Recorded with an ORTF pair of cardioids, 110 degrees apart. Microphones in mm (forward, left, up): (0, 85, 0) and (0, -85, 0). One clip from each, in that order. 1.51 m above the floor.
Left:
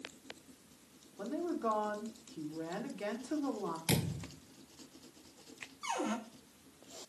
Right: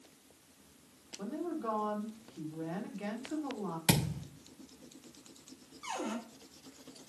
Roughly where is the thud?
Ahead right.